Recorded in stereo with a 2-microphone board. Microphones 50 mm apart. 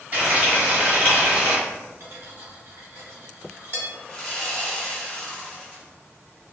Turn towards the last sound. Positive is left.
turn(degrees=15)  # may be behind; listen again after turning